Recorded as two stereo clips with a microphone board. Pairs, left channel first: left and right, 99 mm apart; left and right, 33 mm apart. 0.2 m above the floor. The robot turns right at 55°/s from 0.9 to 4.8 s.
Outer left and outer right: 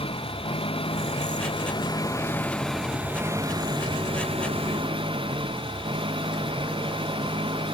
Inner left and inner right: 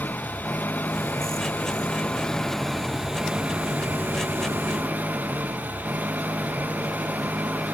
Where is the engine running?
75° left; by 7.8 s 70° right.